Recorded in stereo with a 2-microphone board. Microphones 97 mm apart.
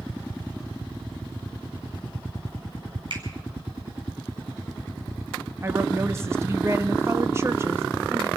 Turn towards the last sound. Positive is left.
turn(degrees=-25)  # may be behind; listen again after turning